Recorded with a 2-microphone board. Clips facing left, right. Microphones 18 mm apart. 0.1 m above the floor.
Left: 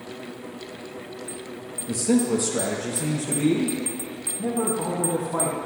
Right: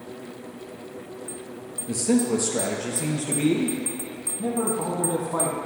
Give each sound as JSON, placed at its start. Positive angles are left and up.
{"t": 1.9, "sound": "a man speaking", "side_deg": -10, "distance_m": 1.5}